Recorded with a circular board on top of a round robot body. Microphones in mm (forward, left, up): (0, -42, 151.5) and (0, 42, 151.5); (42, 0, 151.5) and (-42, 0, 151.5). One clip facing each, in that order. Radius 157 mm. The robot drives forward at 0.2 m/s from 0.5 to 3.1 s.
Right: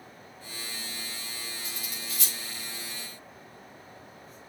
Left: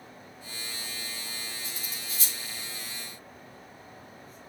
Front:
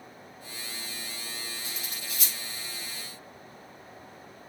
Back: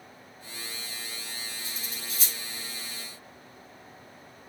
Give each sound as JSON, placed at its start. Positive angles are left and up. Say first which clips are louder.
{"t": 1.6, "sound": "cutlery clinking", "louder": "right 1 dB, even", "azimuth_deg": -125, "distance_m": 3.5}